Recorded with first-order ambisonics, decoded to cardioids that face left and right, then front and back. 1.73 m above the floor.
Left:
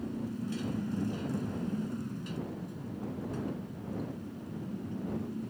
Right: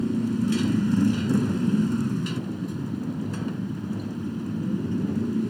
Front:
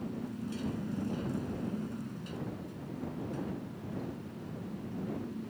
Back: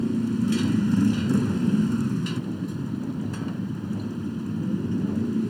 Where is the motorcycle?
140° right.